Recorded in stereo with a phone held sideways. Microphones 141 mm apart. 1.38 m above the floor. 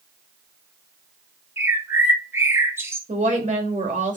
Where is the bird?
20° right (ahead or behind), 1.2 m.